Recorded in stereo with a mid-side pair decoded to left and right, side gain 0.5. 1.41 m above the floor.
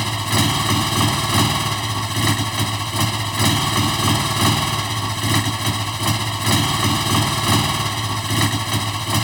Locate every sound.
0.0 s a motorcycle: straight ahead